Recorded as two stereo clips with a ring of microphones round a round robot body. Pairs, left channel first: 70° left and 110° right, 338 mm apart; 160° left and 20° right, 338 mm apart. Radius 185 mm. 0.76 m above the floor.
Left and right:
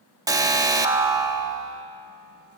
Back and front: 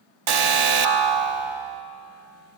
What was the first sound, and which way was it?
An alarm, 35° right.